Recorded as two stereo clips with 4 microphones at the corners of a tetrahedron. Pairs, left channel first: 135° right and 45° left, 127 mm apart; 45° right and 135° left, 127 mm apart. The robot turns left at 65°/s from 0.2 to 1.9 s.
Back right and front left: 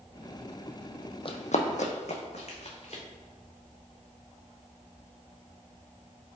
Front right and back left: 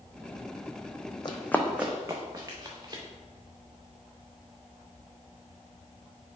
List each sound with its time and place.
1.2 s running footsteps: 95° right, 0.6 m; by 3.0 s 165° right, 1.5 m